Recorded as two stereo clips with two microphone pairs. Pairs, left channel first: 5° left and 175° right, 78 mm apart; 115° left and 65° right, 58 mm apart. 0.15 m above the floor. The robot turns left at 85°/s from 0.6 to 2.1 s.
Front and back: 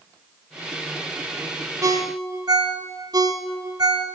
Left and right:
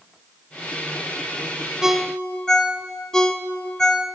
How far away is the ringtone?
About 1.2 m.